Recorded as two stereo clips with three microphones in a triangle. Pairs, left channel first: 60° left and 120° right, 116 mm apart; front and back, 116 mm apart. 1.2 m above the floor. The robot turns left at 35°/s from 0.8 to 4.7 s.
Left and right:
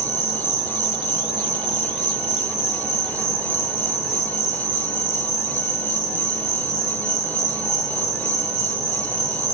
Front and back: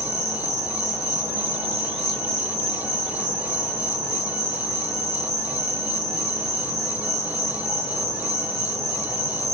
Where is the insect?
90° right, 0.9 m; by 9.5 s 135° left, 0.9 m.